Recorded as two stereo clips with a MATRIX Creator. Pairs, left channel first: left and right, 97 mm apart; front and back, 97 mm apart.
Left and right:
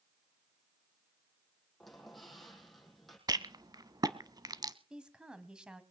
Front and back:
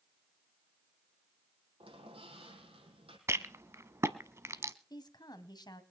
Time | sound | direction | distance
1.8 | a squeak | straight behind | 5 m
3.3 | a rattle | 125° right | 0.9 m
4.9 | a woman speaking | 10° right | 1.6 m